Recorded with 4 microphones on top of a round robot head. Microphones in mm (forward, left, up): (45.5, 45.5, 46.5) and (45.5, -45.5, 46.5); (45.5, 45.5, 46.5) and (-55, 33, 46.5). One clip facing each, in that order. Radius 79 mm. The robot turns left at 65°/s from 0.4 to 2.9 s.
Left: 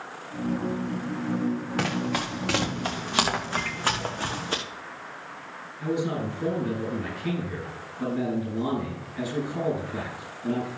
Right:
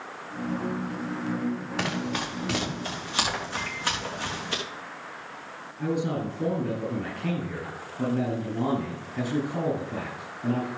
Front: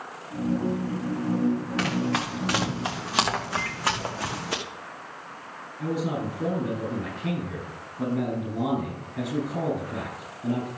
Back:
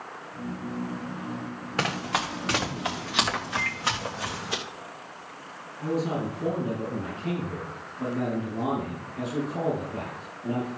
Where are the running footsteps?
140° left, 3 m; by 4.6 s 40° left, 2.5 m.